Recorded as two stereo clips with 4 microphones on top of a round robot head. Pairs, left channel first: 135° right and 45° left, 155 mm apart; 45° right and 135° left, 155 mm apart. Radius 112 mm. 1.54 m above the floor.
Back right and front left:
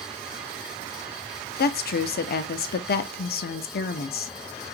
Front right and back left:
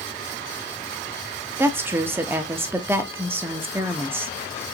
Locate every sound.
1.6 s a woman speaking: 150° right, 0.7 m